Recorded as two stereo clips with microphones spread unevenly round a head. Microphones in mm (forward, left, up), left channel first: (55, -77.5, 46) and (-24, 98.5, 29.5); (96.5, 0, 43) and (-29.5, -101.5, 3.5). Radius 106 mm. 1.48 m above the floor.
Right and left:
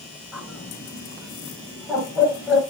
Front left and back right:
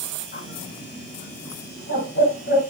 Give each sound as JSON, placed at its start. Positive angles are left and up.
{"t": 0.3, "sound": "a bird", "azimuth_deg": 25, "distance_m": 6.5}